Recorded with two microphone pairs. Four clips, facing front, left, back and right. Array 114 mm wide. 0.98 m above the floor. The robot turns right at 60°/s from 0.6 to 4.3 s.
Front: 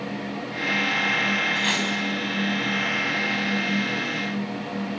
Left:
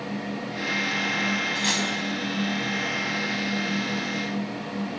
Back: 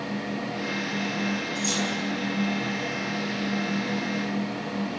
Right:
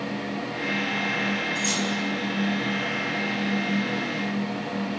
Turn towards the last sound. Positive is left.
turn(degrees=-165)